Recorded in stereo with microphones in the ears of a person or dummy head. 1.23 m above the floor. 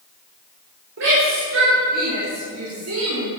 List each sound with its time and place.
1.0 s a shout: 65° right (ahead or behind), 4.5 m; by 3.3 s 75° right (ahead or behind), 3 m